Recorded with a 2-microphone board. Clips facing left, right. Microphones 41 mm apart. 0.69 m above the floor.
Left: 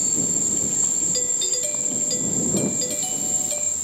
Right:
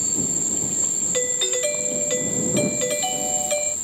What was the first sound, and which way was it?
An insect, 30° right (ahead or behind).